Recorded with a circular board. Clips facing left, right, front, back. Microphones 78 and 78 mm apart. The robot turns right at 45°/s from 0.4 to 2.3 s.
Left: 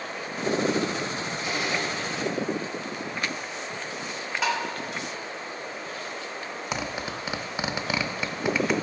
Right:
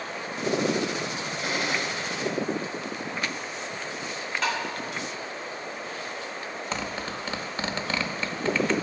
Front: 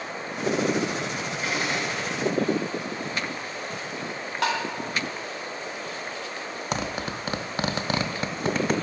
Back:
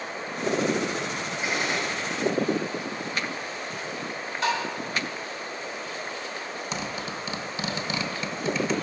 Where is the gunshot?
100° right, 4 m; by 2.2 s 65° right, 4 m.